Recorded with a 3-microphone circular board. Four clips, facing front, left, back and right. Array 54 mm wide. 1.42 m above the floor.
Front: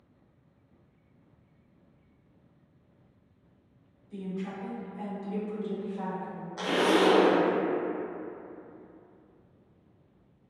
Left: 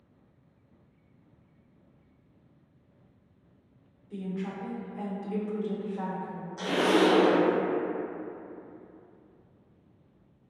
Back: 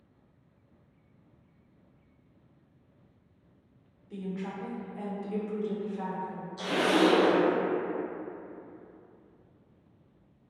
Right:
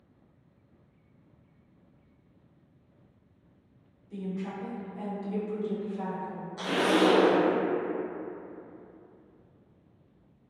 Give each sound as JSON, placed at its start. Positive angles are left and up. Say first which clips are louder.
{"t": 4.1, "sound": "a woman speaking", "louder": "even, even", "azimuth_deg": 160, "distance_m": 1.0}
{"t": 6.6, "sound": "a zipper", "louder": "left 1 dB, front 1 dB", "azimuth_deg": -10, "distance_m": 0.6}